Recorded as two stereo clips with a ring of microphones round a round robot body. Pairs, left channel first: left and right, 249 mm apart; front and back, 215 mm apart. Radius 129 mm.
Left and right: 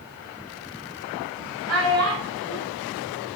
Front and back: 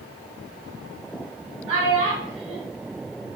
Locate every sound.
1.7 s a child speaking: 105° right, 1.6 m